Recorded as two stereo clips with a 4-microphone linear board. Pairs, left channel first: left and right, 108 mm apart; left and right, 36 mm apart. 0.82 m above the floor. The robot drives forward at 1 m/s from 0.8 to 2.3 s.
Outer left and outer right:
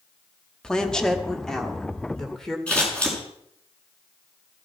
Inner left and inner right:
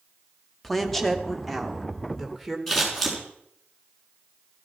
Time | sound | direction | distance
0.6 | a woman speaking | 5° left (ahead or behind) | 1.8 m
2.7 | scissors | 10° left (ahead or behind) | 7.5 m